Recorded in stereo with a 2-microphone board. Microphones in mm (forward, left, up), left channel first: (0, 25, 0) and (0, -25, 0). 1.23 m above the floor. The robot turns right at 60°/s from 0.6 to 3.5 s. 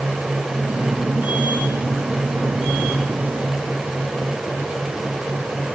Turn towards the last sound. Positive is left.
No sound to turn to.